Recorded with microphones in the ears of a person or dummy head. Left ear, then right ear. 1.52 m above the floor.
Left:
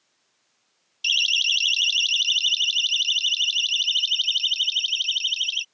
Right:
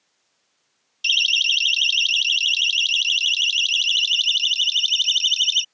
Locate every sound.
1.0 s a siren: 15° right (ahead or behind); by 5.7 s 45° right (ahead or behind)